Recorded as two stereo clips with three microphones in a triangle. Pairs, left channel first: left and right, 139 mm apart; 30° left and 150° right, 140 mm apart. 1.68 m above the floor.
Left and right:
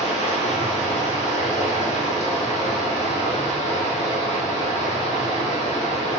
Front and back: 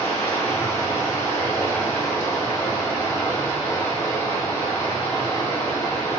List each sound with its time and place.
0.0 s running water: 95° left, 0.8 m